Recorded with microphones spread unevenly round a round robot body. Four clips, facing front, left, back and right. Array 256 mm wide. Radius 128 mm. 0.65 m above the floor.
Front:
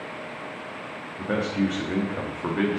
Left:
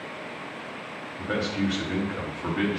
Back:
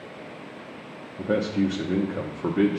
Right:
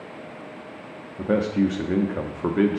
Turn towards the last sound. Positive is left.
turn(degrees=-120)